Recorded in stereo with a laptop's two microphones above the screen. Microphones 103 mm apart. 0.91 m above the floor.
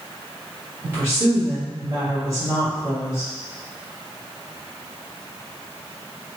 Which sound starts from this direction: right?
A woman speaking, at 0.8 s.